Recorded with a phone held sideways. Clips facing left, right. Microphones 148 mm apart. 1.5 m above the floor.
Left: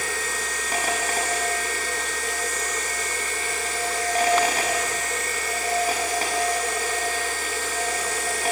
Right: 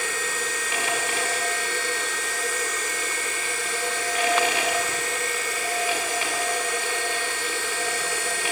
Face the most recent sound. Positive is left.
turn(degrees=40)  # may be behind; listen again after turning